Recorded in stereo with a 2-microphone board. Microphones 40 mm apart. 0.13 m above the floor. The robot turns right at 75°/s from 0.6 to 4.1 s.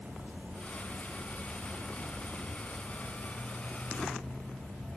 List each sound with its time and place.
0.0 s an insect: 110° right, 3.5 m; by 5.0 s 150° left, 3.5 m